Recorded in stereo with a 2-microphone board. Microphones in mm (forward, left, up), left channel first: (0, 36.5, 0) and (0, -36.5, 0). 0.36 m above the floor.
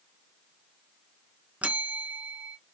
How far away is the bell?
About 0.6 m.